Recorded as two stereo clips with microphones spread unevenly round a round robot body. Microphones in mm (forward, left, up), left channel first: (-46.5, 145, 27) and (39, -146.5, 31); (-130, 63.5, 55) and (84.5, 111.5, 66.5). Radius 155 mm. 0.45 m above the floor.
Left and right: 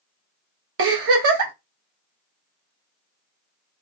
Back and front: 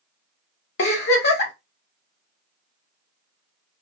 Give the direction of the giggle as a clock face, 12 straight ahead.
4 o'clock.